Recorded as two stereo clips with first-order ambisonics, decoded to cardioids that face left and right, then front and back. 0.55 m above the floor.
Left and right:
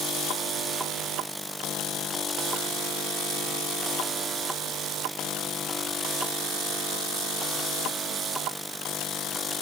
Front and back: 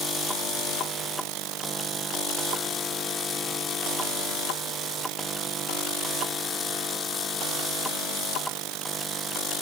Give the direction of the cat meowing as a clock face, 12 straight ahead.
I don't hear a cat meowing.